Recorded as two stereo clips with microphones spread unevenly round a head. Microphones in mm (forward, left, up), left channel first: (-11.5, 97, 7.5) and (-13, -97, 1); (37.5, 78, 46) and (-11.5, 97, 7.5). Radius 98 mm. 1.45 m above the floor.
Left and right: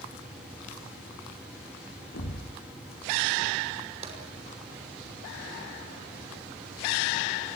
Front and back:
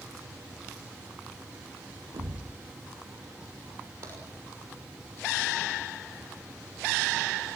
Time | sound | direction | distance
2.1 | a thud | 115° left | 2.5 m
4.0 | tapping | 145° right | 5.5 m